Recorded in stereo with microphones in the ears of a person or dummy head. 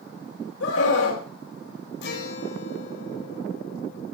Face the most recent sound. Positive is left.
turn(degrees=70)  # may be behind; listen again after turning